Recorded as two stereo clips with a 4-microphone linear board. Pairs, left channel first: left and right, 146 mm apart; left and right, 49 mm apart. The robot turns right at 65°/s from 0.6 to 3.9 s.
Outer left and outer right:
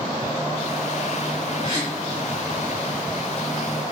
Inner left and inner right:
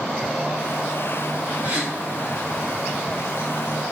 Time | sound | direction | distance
1.6 | a gasp | 45° right (ahead or behind) | 3.5 m